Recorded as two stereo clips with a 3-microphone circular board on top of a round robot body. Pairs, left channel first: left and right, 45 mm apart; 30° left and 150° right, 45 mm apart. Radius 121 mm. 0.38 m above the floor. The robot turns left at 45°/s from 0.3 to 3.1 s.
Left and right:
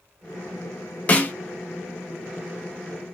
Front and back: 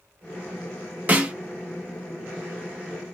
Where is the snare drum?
155° left, 0.7 m; by 1.4 s 140° left, 0.7 m.